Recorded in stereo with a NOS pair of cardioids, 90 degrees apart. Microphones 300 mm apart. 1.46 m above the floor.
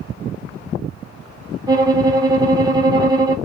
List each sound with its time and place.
1.7 s a violin: 15° right, 0.9 m